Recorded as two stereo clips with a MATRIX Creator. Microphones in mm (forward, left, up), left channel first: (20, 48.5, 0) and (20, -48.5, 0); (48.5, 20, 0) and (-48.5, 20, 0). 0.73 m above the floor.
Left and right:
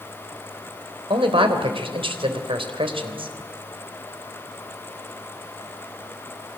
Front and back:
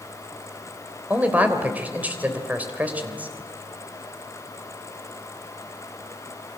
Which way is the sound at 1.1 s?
105° right.